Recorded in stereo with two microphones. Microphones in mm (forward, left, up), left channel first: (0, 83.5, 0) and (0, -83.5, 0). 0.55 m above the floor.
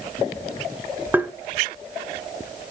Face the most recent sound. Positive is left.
turn(degrees=-10)  # may be behind; listen again after turning